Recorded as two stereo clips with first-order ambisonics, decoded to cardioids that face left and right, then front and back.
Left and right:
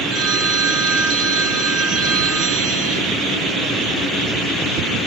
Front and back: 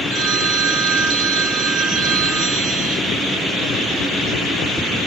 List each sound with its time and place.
0.1 s a phone ringing: 145° right, 1.5 m